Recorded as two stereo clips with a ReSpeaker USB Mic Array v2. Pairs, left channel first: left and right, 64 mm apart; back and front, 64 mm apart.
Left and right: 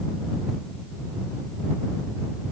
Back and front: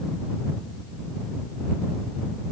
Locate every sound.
Only background noise.